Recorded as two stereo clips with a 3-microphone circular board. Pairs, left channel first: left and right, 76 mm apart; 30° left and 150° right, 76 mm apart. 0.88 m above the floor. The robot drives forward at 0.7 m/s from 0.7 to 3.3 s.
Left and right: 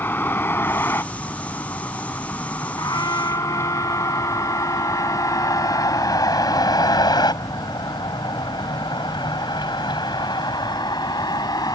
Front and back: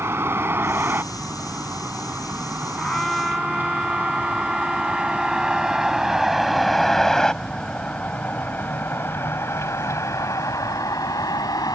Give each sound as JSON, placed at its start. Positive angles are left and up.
{"t": 0.0, "sound": "a vehicle", "azimuth_deg": 155}
{"t": 2.8, "sound": "a trumpet", "azimuth_deg": 110}